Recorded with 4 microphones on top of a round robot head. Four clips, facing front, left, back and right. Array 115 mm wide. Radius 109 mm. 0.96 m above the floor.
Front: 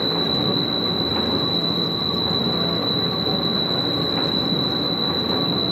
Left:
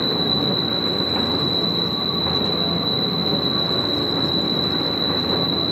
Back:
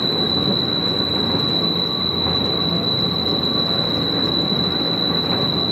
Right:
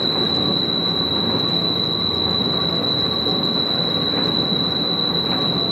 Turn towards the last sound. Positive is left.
turn(degrees=-80)